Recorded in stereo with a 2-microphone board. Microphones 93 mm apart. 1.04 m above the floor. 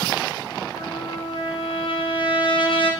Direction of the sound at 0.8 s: 60° left (ahead or behind).